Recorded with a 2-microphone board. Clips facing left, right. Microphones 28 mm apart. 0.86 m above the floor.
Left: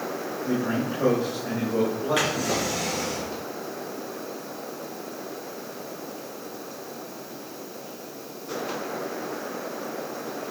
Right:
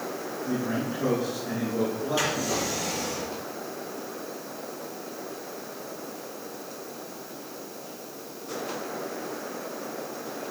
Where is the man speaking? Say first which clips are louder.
Left 3 dB; 50° left (ahead or behind), 4.5 m.